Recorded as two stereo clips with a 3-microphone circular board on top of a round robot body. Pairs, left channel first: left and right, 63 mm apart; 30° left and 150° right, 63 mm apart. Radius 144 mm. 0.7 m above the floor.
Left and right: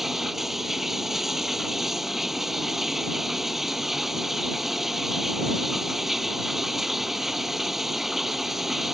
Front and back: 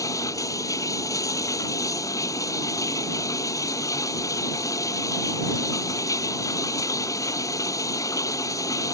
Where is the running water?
5° right.